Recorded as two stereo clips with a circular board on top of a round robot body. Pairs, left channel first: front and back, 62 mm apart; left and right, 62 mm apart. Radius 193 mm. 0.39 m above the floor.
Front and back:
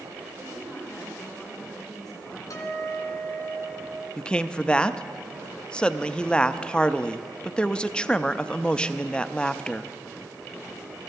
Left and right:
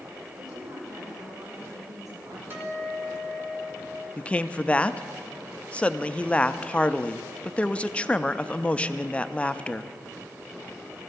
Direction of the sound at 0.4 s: 85° right.